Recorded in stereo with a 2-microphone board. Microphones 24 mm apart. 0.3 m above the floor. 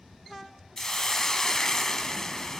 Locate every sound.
0.8 s a hiss: 25° left (ahead or behind), 0.5 m